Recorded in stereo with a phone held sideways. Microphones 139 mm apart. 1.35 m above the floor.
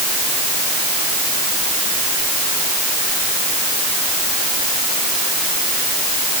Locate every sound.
Only background noise.